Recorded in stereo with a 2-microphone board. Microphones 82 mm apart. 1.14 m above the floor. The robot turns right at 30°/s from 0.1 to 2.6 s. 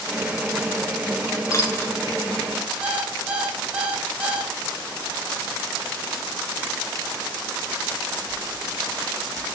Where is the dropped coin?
35° left (ahead or behind), 1.6 m; by 1.9 s 25° left (ahead or behind), 1.6 m.